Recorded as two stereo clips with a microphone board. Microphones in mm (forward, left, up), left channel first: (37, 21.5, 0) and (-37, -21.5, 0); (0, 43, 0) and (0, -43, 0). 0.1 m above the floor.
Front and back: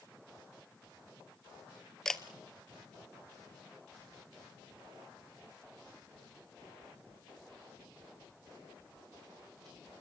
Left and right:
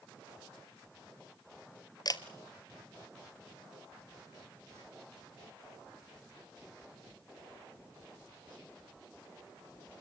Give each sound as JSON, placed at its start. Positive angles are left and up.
{"t": 2.0, "sound": "a camera shutter", "azimuth_deg": 115, "distance_m": 1.0}